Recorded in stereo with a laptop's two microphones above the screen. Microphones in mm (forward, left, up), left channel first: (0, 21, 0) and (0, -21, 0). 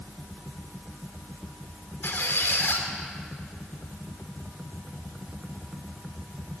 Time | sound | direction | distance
2.0 | a squeak | 65° left (ahead or behind) | 2 m